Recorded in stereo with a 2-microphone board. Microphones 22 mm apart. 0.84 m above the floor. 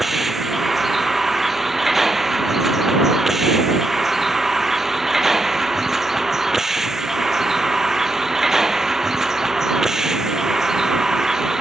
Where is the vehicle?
10° right (ahead or behind); by 11.6 s 25° right (ahead or behind).